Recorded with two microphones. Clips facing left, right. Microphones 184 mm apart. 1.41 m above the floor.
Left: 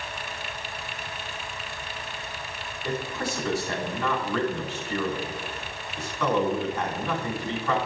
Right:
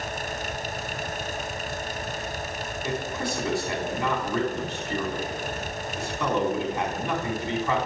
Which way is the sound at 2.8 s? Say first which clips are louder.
Even; 20° right (ahead or behind).